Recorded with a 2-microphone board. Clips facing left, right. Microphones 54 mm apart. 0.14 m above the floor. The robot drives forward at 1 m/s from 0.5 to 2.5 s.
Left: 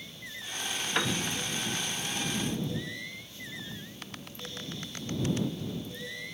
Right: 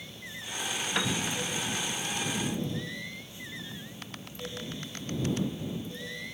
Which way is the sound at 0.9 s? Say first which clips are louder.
Left 1 dB; 5° left (ahead or behind).